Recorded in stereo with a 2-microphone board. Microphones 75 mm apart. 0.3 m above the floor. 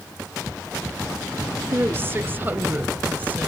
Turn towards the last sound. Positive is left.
turn(degrees=-20)  # may be behind; listen again after turning